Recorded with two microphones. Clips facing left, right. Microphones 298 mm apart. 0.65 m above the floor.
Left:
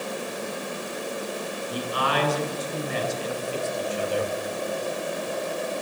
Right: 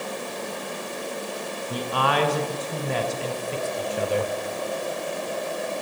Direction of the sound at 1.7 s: 70° right (ahead or behind).